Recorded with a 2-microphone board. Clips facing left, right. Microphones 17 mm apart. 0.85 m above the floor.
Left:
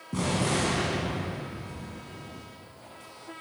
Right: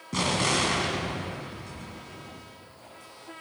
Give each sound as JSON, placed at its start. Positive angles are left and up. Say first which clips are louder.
{"t": 0.1, "sound": "an explosion", "louder": "right 2 dB", "side_deg": -60, "distance_m": 2.5}